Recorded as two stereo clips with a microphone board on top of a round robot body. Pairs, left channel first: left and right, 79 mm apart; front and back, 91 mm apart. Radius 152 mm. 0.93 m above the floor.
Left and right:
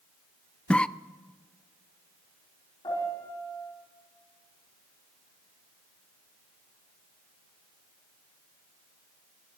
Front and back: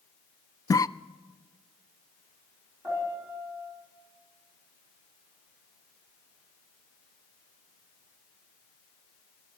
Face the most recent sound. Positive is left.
turn(degrees=115)